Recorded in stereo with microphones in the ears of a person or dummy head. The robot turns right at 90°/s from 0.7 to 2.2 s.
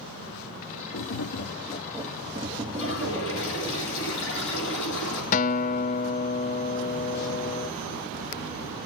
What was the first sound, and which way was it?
Tapping, 80° left.